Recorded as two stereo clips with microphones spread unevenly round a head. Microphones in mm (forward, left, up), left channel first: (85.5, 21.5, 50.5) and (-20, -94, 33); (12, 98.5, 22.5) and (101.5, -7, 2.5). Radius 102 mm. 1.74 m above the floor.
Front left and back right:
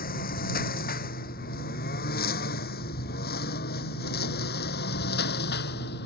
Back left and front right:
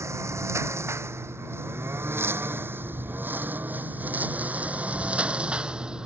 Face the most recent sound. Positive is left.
turn(degrees=35)